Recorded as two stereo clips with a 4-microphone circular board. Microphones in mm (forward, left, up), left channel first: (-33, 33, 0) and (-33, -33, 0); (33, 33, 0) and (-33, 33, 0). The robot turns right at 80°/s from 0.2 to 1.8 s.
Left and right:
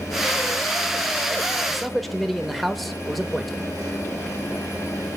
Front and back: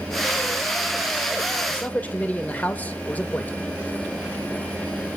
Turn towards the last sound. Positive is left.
turn(degrees=5)